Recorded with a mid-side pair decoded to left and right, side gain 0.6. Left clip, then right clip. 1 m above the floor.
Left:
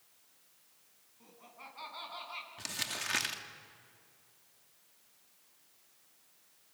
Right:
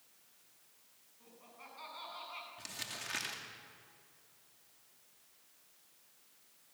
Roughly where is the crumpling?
Ahead left.